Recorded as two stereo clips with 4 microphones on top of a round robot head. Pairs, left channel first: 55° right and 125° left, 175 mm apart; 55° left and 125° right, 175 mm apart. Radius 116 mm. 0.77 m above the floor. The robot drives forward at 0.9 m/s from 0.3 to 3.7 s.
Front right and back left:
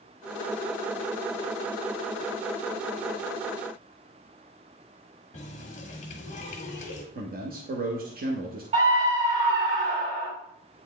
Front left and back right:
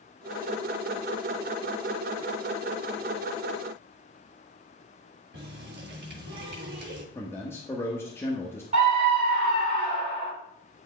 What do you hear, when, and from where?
5.3 s a running tap: 100° right, 1.4 m
7.2 s a man speaking: 125° left, 1.1 m
8.7 s a scream: 175° left, 4.5 m